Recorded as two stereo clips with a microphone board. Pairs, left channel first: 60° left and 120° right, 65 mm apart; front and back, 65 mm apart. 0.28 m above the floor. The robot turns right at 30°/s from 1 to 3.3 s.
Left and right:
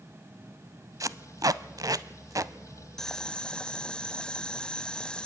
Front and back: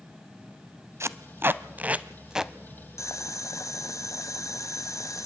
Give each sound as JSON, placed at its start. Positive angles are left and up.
{"t": 1.0, "sound": "tape being pulled", "azimuth_deg": -145, "distance_m": 0.5}
{"t": 3.0, "sound": "boiling", "azimuth_deg": -20, "distance_m": 0.9}